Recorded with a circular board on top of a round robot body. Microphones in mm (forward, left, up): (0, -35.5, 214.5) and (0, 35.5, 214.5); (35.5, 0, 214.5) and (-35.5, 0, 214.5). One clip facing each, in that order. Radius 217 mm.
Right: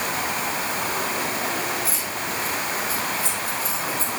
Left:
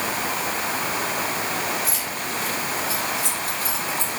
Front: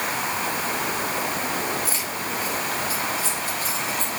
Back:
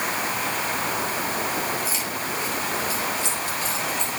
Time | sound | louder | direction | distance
1.9 | keys jangling | even, even | 50° left | 8 m